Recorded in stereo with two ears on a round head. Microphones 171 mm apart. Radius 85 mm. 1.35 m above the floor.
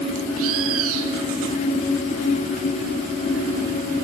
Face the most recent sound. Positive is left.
turn(degrees=-85)